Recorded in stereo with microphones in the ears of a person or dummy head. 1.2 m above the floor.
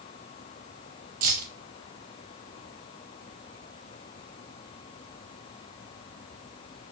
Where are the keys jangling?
45° right (ahead or behind), 1.6 m.